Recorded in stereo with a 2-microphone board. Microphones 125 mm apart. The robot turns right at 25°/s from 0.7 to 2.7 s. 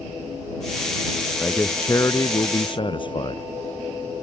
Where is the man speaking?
10° left; by 3.4 s 40° left.